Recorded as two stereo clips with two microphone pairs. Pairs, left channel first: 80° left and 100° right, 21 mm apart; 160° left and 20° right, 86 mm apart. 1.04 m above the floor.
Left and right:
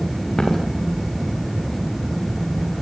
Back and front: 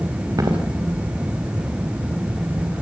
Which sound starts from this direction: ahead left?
Footsteps, at 0.4 s.